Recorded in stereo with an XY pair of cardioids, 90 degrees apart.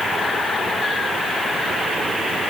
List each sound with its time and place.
Only background noise.